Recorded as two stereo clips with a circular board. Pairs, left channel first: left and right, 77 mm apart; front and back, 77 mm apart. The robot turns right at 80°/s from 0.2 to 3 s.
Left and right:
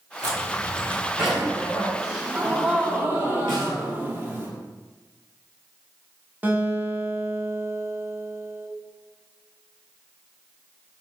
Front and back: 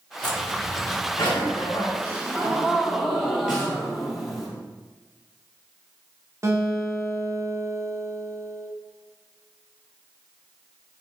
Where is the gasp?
Straight behind, 0.8 m; by 4.5 s 95° right, 0.8 m.